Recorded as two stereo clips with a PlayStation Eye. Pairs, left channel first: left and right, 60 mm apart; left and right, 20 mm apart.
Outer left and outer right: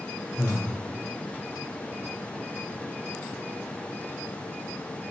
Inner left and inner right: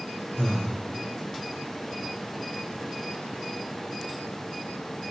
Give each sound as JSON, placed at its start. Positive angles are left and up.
{"t": 0.4, "sound": "breathing", "side_deg": 35, "distance_m": 1.9}